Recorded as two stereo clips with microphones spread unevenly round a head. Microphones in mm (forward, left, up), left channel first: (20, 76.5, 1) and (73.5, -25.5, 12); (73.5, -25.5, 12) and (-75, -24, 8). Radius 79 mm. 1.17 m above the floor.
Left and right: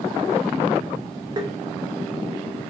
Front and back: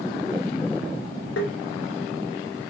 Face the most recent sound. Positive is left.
turn(degrees=-10)